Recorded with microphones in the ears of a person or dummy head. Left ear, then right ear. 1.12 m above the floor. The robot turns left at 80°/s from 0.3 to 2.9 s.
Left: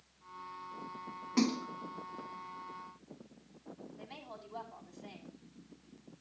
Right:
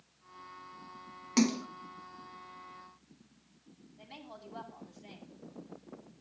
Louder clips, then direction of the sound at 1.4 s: Right 3 dB; 75° right (ahead or behind).